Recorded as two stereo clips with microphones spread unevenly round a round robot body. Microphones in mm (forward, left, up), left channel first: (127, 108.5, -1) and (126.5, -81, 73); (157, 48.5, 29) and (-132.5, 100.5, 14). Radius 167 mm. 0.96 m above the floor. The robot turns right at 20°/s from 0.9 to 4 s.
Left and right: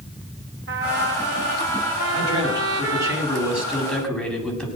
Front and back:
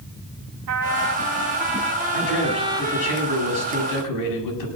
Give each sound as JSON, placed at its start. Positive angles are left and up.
{"t": 0.7, "sound": "a trumpet", "azimuth_deg": -150, "distance_m": 2.5}
{"t": 2.1, "sound": "a man speaking", "azimuth_deg": -35, "distance_m": 7.5}